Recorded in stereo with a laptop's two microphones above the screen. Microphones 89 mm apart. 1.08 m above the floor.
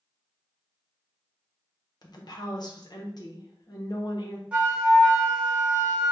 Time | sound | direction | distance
2.0 | a woman speaking | 55° left (ahead or behind) | 0.7 m
4.5 | a flute | 15° right (ahead or behind) | 0.9 m